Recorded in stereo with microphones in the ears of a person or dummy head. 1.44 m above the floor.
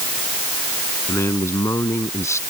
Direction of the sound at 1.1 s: 15° left (ahead or behind).